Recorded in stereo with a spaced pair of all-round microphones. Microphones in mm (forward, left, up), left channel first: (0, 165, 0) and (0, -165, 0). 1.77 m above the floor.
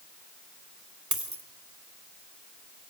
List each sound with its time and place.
1.1 s a dropped coin: 60° right (ahead or behind), 2.5 m